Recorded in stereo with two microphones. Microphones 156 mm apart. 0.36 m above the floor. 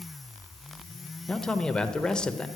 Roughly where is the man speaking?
Centre.